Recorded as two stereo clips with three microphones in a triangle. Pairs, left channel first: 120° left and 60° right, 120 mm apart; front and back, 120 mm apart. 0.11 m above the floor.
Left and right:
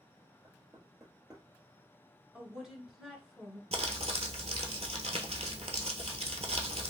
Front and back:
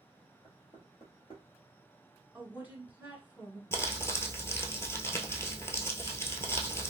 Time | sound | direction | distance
0.4 | knocking | 5° right | 1.7 m
2.3 | a woman speaking | 140° right | 1.3 m
3.7 | crumpling | 65° right | 0.9 m